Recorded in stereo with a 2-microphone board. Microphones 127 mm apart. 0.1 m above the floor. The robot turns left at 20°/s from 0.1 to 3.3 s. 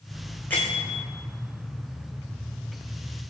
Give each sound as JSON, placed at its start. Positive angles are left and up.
{"t": 0.5, "sound": "a bell", "side_deg": 15, "distance_m": 2.0}